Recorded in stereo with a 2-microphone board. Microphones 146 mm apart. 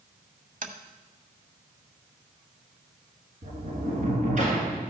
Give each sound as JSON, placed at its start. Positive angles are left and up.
{"t": 0.6, "sound": "tapping", "side_deg": -55, "distance_m": 0.8}
{"t": 3.4, "sound": "a sliding door", "side_deg": -55, "distance_m": 2.0}